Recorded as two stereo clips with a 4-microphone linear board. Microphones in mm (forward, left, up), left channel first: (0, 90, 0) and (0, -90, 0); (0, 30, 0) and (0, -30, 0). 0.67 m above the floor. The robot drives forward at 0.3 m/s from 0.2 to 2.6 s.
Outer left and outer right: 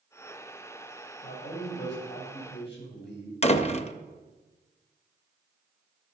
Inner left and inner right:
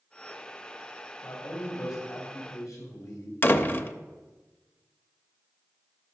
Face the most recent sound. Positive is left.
turn(degrees=35)  # may be behind; listen again after turning